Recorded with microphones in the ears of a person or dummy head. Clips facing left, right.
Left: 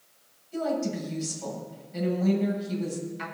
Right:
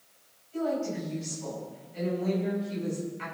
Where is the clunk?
No clunk in this recording.